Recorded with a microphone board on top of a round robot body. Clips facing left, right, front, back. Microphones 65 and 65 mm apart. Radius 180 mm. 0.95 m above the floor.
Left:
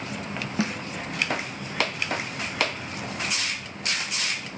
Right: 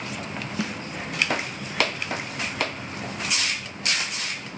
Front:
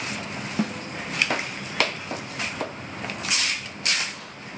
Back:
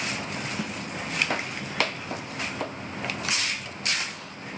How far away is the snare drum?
About 1.8 m.